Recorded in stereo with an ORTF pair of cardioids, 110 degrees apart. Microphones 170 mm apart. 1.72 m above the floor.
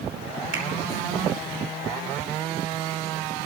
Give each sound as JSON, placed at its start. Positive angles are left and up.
{"t": 0.5, "sound": "a finger snap", "azimuth_deg": -70, "distance_m": 4.5}